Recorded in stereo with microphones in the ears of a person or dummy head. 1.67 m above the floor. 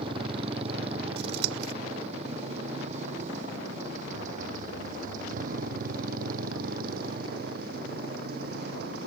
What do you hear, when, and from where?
0.0 s a motorcycle: 35° right (ahead or behind); by 9.1 s 60° right (ahead or behind)
1.2 s scissors: 60° right (ahead or behind)